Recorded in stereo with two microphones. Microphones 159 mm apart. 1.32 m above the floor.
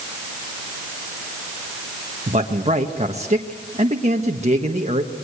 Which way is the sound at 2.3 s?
45° right (ahead or behind).